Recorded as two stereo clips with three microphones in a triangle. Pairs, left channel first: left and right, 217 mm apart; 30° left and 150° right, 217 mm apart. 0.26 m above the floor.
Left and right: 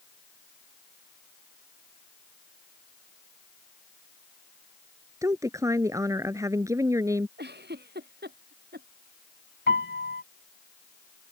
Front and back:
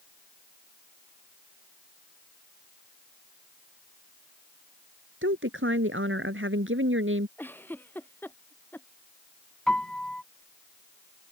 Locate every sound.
5.2 s a woman speaking: 165° right
7.4 s a giggle: 50° right
9.7 s a piano: 115° left